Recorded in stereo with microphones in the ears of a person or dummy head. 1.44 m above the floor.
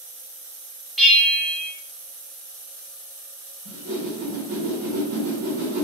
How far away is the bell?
About 0.7 m.